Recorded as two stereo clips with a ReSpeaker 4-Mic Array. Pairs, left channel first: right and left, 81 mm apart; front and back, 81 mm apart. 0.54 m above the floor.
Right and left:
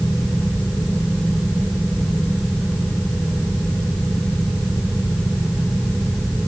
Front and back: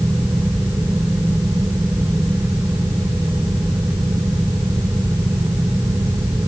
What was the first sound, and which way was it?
Only background noise.